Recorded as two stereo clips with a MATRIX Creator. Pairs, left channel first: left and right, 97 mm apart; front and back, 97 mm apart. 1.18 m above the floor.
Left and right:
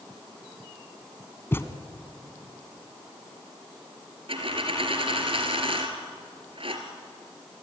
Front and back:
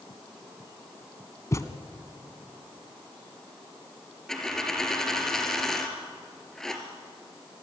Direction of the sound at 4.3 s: 85° right.